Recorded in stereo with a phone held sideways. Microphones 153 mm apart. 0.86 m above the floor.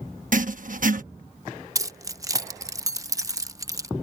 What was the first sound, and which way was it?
Writing, 60° right (ahead or behind).